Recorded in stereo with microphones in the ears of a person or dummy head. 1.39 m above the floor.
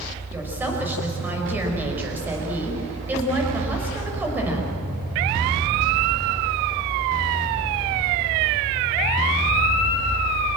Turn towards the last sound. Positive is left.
turn(degrees=-10)  # may be behind; listen again after turning